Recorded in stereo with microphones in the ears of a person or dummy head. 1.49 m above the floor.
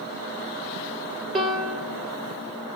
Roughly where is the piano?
Centre.